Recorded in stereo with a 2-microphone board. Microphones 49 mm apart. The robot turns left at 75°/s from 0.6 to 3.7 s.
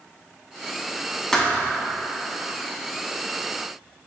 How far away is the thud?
About 0.8 m.